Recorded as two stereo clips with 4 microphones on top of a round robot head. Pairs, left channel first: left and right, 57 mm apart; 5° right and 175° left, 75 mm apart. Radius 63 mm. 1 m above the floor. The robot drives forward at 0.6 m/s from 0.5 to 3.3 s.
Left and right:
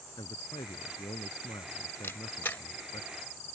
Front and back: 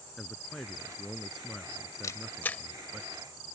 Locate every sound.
0.2 s a man speaking: 80° left; by 3.0 s 90° left
2.0 s a camera shutter: 25° left; by 2.6 s 55° left